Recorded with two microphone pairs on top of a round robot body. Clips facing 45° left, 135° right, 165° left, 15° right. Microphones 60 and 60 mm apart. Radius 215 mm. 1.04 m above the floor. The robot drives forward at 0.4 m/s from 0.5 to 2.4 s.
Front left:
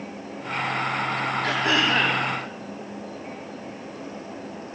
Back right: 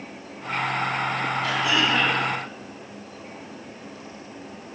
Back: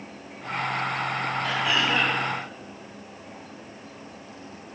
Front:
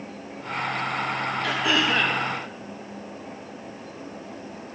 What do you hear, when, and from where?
1.4 s throat clearing: 5° left, 2.5 m